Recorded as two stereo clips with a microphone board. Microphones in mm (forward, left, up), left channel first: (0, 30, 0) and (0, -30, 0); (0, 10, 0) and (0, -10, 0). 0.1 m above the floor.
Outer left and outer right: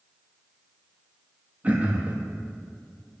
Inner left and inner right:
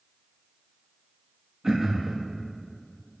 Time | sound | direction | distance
1.6 | throat clearing | 25° right (ahead or behind) | 1.2 m